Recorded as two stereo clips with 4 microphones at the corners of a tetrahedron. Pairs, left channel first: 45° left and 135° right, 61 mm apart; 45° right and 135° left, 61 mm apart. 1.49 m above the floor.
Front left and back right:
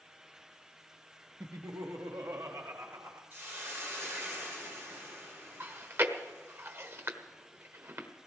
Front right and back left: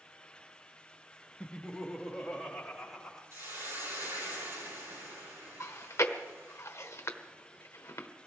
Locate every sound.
1.4 s laughter: 120° right, 0.9 m; by 3.2 s 130° right, 3.5 m
3.3 s a hiss: 175° left, 8 m
5.6 s chewing: 90° right, 1.1 m